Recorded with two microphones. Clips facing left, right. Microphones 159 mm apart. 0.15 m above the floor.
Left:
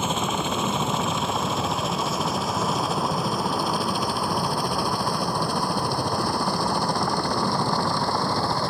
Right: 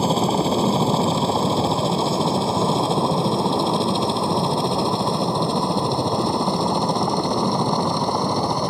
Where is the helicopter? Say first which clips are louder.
Right 7 dB; 35° right (ahead or behind); by 8.7 s 20° right (ahead or behind).